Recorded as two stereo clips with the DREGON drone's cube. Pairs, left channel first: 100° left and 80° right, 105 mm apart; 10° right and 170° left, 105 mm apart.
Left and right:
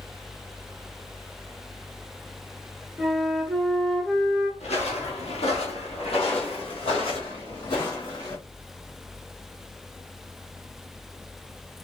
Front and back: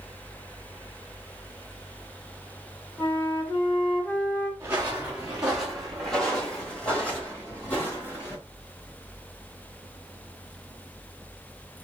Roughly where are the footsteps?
Left.